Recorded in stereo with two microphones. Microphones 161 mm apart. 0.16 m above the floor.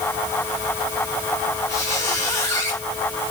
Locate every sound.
1.7 s a squeak: 15° left (ahead or behind), 6 m